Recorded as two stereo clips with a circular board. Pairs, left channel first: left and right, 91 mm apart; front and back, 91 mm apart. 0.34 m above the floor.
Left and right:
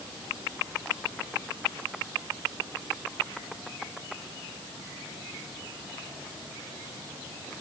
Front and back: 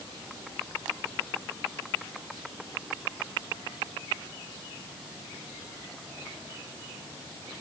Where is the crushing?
No crushing in this recording.